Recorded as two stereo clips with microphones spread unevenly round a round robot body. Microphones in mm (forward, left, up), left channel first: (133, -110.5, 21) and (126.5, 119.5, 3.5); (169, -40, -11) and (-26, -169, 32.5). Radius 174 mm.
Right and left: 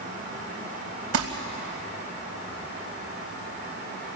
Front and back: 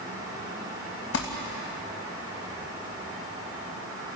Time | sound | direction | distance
1.1 | crumpling | 80° left | 3 m